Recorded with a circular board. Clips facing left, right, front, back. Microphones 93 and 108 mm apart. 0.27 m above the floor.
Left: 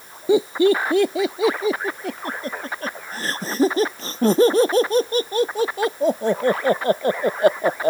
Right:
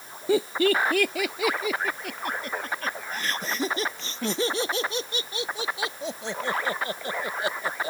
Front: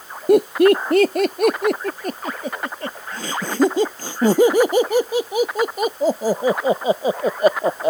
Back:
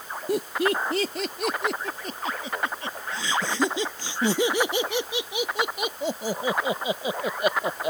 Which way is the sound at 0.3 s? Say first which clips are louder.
Left 6 dB, front 12 dB; 20° left.